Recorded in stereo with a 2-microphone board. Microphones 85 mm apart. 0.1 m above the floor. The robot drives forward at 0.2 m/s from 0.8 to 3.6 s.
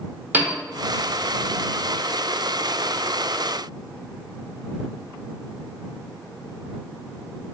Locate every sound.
0.3 s a piano: 25° right (ahead or behind), 1.0 m